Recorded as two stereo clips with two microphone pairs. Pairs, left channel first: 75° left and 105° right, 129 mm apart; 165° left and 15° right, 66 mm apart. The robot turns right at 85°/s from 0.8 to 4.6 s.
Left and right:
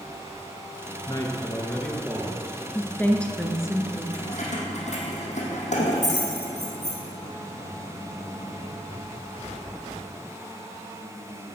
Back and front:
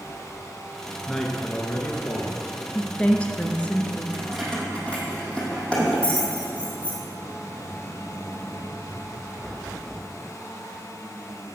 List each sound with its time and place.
1.1 s a man speaking: 85° left, 1.9 m; by 2.6 s 140° right, 1.9 m
2.8 s a woman speaking: 100° left, 1.3 m; by 4.0 s 150° right, 1.3 m
4.1 s keys jangling: 50° left, 3.5 m; by 7.0 s 90° left, 3.5 m